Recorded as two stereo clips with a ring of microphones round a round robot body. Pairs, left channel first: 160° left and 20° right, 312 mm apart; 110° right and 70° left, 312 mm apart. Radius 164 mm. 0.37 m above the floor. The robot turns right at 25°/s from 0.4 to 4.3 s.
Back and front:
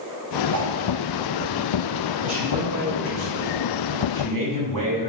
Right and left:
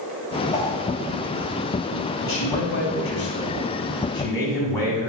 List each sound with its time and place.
0.5 s a whoosh: 45° right, 1.5 m; by 0.8 s 40° right, 1.5 m
2.2 s a man speaking: 85° right, 2.5 m; by 5.1 s 30° right, 2.5 m